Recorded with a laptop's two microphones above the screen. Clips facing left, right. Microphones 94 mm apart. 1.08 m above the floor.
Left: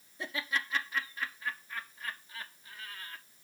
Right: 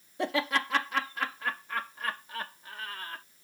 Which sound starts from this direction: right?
Laughter, at 0.2 s.